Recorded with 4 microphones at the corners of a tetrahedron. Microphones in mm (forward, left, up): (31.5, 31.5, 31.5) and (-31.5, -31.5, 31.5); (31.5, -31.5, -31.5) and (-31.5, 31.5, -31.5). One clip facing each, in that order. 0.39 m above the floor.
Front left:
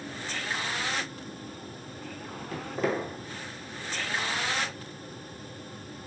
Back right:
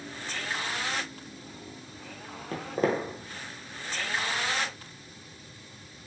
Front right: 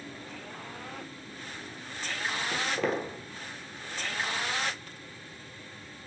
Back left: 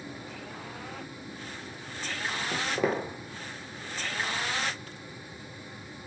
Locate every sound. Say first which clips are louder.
2.5 s footsteps: back right 2 dB, back left 2 dB; 155° right, 0.5 m